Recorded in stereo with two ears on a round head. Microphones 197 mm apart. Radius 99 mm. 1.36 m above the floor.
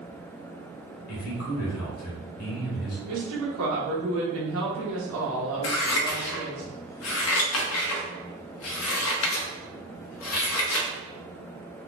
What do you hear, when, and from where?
1.1 s a man speaking: 75° left (ahead or behind), 1.4 m
3.1 s a woman speaking: 65° right (ahead or behind), 1.1 m
5.6 s scissors: 70° left (ahead or behind), 0.9 m